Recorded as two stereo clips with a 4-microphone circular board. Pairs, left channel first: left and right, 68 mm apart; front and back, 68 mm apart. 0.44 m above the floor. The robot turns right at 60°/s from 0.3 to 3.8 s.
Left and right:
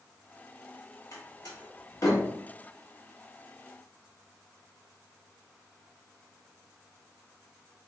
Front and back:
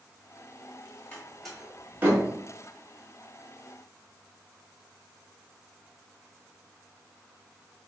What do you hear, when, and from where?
1.1 s a door slam: 65° left, 1.5 m; by 2.3 s 135° left, 1.5 m